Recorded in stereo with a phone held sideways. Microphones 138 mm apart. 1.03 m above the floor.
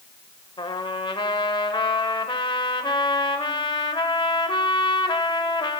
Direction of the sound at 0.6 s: 35° left (ahead or behind).